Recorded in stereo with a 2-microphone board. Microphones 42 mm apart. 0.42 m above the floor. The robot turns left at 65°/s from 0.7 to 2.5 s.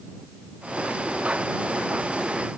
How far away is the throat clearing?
No throat clearing in this recording.